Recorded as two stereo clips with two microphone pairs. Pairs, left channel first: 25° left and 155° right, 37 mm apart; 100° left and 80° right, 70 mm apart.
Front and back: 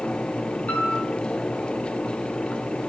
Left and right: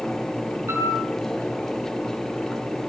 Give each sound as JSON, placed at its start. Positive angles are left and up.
{"t": 0.7, "sound": "a piano", "azimuth_deg": -25, "distance_m": 9.0}